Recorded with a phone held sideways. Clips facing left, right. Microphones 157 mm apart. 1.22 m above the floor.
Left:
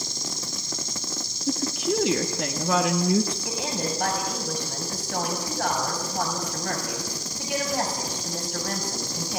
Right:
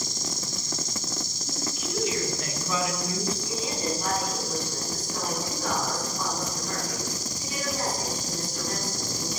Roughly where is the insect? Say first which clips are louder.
Right 1 dB; right.